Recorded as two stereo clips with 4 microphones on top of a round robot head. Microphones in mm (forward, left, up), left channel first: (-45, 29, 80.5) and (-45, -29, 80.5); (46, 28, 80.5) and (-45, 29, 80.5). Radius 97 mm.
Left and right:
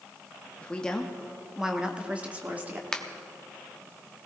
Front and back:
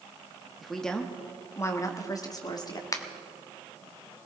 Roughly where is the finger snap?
Ahead.